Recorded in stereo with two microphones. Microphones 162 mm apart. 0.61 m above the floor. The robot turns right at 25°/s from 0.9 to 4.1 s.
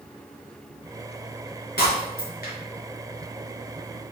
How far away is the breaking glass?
About 3 m.